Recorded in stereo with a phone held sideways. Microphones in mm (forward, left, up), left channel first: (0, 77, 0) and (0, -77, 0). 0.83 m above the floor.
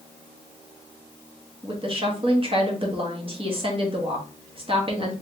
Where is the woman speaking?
35° right (ahead or behind), 1.3 m.